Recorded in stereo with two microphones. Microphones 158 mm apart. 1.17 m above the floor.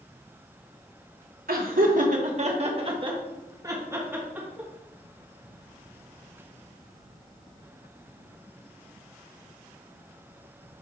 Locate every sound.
1.5 s laughter: 70° right (ahead or behind), 1.5 m; by 4.7 s 5° right (ahead or behind), 2.5 m